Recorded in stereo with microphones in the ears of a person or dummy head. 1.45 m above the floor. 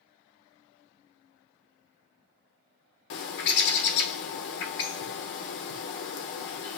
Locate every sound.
3.1 s a bird: 65° left (ahead or behind), 0.8 m